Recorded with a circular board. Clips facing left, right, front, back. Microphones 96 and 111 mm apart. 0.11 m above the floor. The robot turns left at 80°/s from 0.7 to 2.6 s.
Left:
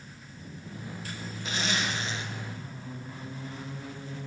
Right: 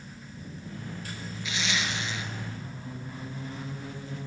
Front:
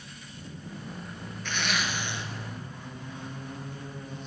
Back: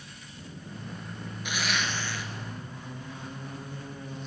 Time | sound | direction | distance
1.4 | a zipper | 110° left | 1.0 m